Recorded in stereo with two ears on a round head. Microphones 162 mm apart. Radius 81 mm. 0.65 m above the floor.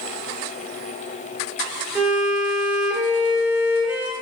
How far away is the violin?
About 3 m.